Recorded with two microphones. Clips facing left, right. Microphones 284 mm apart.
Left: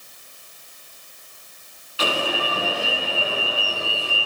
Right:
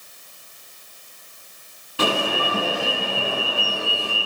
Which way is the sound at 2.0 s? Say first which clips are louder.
Right 3 dB; 60° right (ahead or behind).